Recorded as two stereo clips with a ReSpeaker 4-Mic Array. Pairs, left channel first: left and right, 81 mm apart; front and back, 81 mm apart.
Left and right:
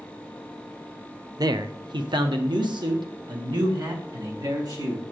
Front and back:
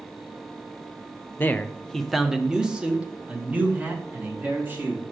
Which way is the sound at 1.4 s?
60° right.